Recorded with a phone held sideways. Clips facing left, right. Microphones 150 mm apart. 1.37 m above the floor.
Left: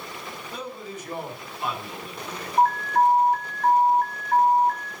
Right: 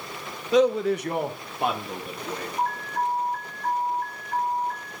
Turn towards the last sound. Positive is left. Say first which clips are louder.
# left 9 dB
turn(degrees=75)  # may be behind; listen again after turning